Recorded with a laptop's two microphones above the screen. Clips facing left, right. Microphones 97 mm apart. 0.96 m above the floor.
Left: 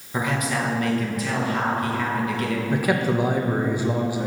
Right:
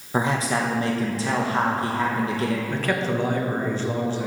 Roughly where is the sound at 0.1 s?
Right.